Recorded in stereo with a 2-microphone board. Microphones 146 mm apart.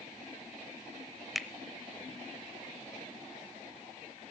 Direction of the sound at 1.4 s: Centre (ahead or behind).